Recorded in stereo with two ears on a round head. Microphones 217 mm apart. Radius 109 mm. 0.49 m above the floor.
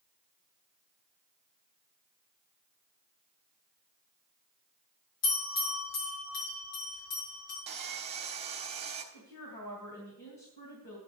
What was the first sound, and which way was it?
A bell, 70° left (ahead or behind).